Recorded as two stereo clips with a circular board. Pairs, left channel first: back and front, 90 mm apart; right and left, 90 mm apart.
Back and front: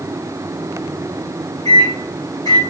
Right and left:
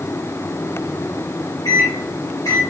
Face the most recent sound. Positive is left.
turn(degrees=-140)